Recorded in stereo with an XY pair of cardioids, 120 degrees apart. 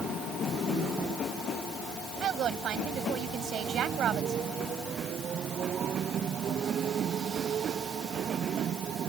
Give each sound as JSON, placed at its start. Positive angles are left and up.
{"t": 2.2, "sound": "a woman speaking", "azimuth_deg": -60}